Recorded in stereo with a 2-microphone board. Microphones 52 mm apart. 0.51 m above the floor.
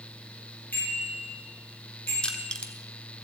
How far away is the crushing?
About 1.1 m.